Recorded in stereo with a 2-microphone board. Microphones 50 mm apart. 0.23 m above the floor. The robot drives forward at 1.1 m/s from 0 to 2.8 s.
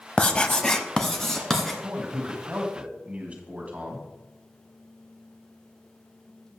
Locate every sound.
0.2 s writing: 20° left (ahead or behind), 0.6 m; by 1.7 s 5° left (ahead or behind), 1.8 m
1.8 s a man speaking: 30° right (ahead or behind), 1.6 m; by 4.1 s 25° right (ahead or behind), 1.9 m